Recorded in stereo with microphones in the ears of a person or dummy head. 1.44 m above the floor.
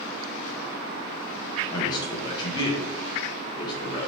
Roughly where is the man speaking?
Left.